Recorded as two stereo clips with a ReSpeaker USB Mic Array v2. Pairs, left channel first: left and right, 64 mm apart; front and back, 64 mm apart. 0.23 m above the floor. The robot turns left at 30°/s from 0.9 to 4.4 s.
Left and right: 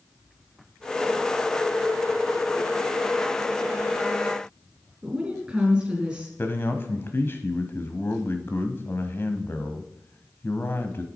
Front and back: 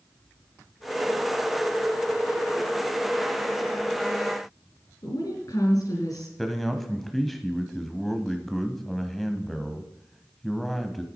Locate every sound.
5.0 s a woman speaking: 15° right, 4 m
6.4 s a man speaking: 85° left, 1.2 m